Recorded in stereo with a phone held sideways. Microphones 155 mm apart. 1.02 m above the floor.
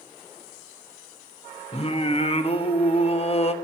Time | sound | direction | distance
1.7 | singing | 40° left (ahead or behind) | 1.0 m